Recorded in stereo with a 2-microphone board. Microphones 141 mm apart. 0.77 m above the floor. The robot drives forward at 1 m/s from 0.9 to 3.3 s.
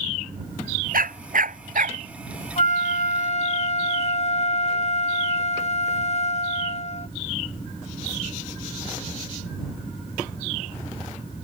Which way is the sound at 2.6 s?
55° left (ahead or behind).